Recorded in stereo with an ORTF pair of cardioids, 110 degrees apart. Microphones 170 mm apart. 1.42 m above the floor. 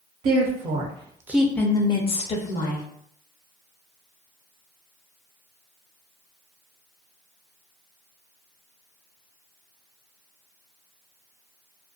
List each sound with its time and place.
0.2 s a woman speaking: 60° right, 0.9 m; by 2.8 s 55° left, 1.1 m